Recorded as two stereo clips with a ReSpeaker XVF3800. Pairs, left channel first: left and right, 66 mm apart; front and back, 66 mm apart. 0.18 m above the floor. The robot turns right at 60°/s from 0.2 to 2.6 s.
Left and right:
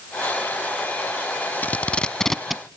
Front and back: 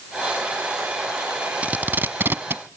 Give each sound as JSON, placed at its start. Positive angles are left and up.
{"t": 1.6, "sound": "tape being pulled", "azimuth_deg": 130, "distance_m": 0.6}